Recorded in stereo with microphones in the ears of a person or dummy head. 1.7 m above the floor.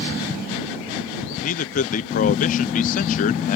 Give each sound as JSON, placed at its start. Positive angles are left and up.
{"t": 1.4, "sound": "a man speaking", "side_deg": 50}